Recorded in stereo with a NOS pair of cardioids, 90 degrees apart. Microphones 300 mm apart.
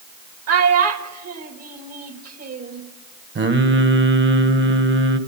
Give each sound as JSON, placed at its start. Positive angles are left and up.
{"t": 0.5, "sound": "a child speaking", "azimuth_deg": -60, "distance_m": 2.0}
{"t": 3.4, "sound": "singing", "azimuth_deg": -40, "distance_m": 1.2}